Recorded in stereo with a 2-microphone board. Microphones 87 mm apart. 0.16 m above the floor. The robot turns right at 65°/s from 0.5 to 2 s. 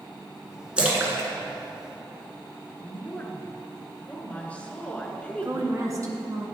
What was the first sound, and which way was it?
A splash, 10° right (ahead or behind).